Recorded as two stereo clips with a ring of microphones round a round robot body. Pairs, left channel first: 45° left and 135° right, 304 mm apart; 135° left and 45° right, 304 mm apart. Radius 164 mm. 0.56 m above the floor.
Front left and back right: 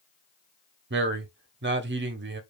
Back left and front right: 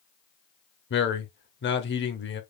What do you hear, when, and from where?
0.9 s a man speaking: straight behind, 1.0 m